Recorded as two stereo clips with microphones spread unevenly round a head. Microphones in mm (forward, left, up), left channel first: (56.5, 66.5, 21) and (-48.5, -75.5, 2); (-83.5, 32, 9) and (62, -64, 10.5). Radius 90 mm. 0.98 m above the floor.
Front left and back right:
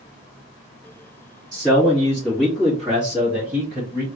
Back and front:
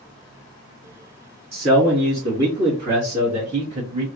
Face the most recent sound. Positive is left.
turn(degrees=-75)